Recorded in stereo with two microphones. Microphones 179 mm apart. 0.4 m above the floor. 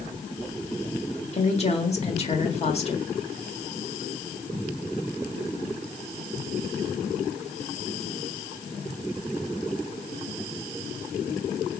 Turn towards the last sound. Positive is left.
turn(degrees=35)  # may be behind; listen again after turning